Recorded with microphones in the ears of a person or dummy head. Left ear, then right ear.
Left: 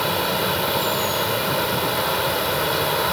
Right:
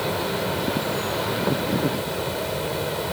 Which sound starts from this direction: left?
An insect, at 0.0 s.